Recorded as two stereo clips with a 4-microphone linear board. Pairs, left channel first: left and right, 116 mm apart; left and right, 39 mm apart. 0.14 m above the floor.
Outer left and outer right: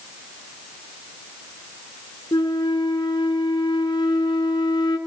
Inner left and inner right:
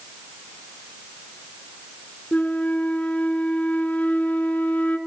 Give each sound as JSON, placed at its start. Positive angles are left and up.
{"t": 2.3, "sound": "a flute", "side_deg": 40, "distance_m": 1.6}